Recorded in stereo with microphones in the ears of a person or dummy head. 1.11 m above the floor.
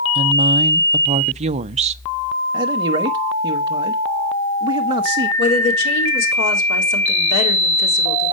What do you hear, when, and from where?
0.1 s a woman speaking: 35° right (ahead or behind), 0.5 m
2.5 s a man speaking: 25° right (ahead or behind), 1.0 m
5.4 s a woman speaking: 65° left (ahead or behind), 4 m